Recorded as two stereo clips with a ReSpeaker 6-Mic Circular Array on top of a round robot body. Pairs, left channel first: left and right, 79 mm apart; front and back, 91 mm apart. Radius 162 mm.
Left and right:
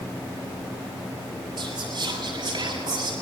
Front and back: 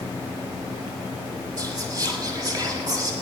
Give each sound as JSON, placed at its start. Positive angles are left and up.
{"t": 1.6, "sound": "whispering", "azimuth_deg": -130, "distance_m": 9.0}